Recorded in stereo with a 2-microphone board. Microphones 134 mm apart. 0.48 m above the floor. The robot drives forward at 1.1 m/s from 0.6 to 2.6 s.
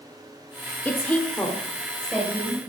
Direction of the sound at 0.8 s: 10° left (ahead or behind).